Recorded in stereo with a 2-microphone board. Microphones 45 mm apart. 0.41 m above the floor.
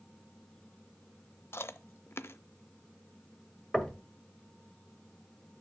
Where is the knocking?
15° left (ahead or behind), 1.6 m.